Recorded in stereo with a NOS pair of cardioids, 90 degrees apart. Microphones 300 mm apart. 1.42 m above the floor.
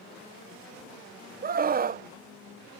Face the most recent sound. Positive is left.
turn(degrees=-30)